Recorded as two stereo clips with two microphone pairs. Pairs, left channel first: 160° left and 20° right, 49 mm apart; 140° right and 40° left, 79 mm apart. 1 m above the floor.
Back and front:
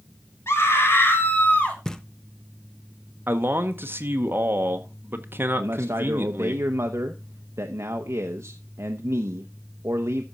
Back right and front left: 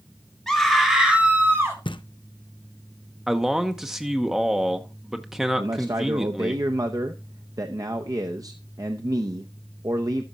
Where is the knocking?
125° right, 0.6 m.